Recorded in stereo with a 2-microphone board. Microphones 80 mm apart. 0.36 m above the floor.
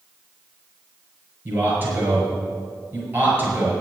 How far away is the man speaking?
About 6 m.